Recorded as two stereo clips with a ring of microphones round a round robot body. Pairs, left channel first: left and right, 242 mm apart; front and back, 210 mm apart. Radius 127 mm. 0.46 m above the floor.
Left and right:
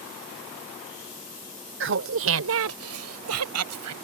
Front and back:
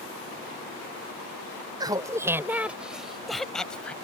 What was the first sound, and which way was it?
Laughter, 110° right.